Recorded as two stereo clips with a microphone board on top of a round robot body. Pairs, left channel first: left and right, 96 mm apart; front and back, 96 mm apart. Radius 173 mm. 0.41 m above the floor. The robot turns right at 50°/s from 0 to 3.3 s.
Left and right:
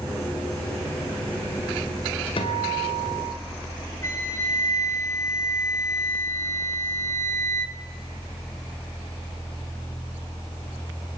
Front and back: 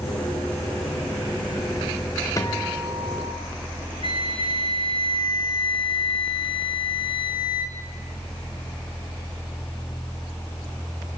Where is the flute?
30° left, 2.0 m.